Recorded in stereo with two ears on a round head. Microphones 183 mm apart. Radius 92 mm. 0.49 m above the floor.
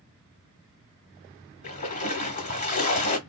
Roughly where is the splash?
Left.